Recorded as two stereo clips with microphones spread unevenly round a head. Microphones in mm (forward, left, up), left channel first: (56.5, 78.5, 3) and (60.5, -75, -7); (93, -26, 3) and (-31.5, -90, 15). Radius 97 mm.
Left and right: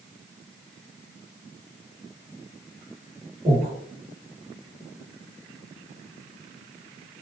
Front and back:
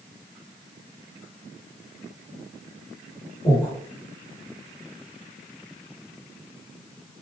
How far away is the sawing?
No sawing in this recording.